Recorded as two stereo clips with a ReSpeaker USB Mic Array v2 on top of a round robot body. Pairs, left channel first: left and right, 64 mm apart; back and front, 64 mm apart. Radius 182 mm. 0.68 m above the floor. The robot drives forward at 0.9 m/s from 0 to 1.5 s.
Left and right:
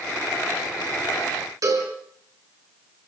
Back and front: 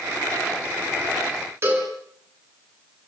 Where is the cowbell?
55° right, 5.5 m.